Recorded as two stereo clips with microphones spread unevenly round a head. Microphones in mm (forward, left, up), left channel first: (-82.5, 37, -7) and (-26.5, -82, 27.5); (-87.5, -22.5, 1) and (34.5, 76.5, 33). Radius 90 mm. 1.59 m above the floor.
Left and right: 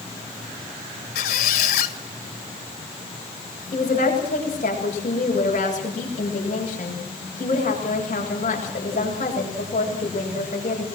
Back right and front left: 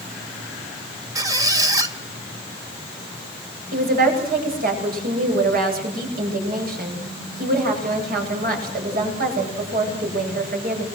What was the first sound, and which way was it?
A squeak, 95° left.